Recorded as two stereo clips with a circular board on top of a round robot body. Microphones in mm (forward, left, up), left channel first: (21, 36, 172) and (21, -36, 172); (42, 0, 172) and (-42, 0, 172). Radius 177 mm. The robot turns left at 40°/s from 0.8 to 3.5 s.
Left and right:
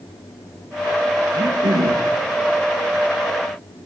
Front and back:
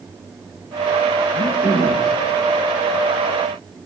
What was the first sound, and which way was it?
Throat clearing, 65° right.